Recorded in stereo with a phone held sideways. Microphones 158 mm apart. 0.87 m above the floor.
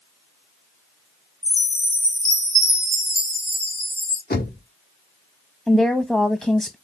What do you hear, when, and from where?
1.4 s a chime: 55° left (ahead or behind), 1.9 m
4.3 s knocking: 75° left (ahead or behind), 1.5 m
5.7 s a woman speaking: 5° left (ahead or behind), 0.6 m